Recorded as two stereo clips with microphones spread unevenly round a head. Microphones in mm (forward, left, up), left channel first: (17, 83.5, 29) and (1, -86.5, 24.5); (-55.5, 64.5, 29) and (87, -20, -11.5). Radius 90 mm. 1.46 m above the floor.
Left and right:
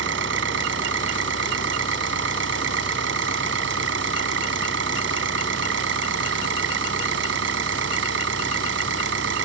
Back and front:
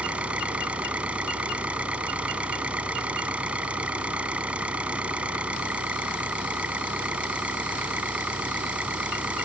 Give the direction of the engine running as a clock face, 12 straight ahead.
4 o'clock.